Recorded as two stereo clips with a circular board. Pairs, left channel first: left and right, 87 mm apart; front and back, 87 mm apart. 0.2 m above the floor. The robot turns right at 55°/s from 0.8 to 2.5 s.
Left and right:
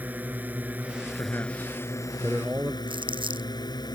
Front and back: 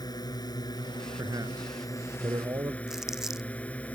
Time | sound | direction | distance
0.0 | a drone | 20° right | ?
1.2 | a man speaking | 135° left | ?
2.9 | crumpling | 95° right | ?